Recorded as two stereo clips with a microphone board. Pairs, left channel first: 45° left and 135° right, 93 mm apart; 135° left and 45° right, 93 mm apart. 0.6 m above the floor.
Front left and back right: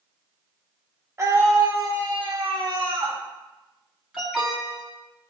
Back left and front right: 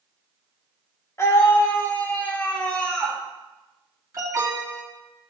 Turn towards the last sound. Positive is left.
turn(degrees=-60)